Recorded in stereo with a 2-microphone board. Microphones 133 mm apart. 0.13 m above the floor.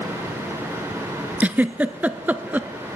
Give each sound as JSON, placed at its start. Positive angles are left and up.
{"t": 1.4, "sound": "a giggle", "side_deg": -15, "distance_m": 0.5}